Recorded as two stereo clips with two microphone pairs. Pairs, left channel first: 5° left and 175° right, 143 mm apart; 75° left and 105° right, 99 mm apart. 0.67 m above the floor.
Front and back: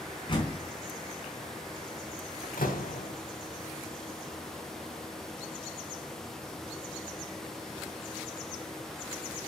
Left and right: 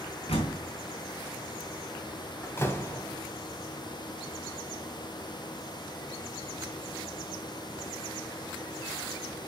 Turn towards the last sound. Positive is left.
turn(degrees=10)